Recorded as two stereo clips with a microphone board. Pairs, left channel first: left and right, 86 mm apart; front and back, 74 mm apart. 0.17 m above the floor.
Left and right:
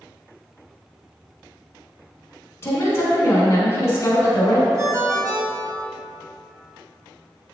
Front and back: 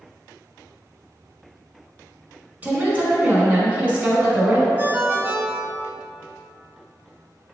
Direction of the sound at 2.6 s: 125° left.